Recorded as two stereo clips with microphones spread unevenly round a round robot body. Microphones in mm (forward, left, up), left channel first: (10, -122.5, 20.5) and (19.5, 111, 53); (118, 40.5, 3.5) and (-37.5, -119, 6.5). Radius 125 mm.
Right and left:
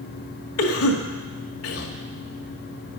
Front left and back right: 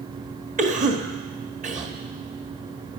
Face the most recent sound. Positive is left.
turn(degrees=-80)